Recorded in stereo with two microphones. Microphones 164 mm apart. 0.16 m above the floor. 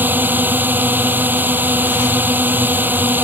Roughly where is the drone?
Centre.